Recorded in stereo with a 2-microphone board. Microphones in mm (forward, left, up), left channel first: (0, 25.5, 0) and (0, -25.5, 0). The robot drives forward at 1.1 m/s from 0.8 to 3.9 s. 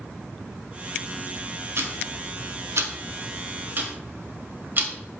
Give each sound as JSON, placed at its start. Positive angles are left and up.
{"t": 1.8, "sound": "ticking", "side_deg": -50, "distance_m": 1.8}